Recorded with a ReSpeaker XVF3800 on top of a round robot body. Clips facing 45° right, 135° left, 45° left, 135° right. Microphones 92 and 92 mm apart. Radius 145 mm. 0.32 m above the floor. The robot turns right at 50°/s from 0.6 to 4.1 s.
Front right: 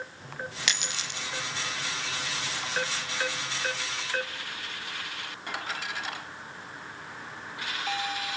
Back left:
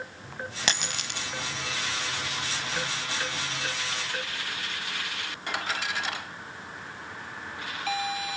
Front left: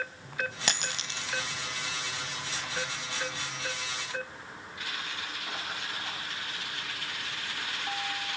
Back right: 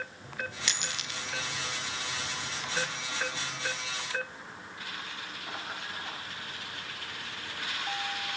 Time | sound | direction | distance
0.7 | a dropped coin | 85° left | 1.3 m